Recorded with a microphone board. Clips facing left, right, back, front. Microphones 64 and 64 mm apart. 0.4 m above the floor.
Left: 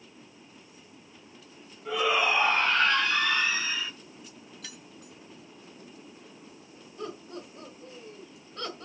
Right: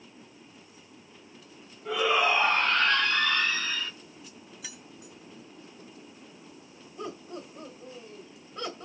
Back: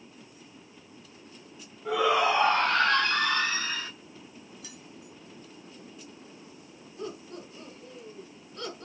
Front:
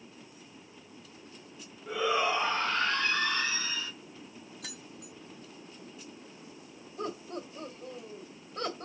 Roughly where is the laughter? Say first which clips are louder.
Even, front 2 dB; ahead.